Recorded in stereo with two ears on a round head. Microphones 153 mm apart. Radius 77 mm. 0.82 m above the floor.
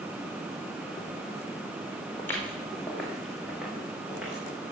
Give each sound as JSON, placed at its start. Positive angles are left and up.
{"t": 2.2, "sound": "footsteps", "side_deg": 15, "distance_m": 4.0}